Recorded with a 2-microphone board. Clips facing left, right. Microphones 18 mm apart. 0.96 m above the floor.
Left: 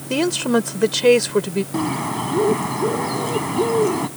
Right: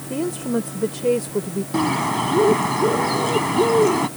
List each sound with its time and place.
0.1 s a woman speaking: 80° left
1.7 s a bird: 15° right (ahead or behind)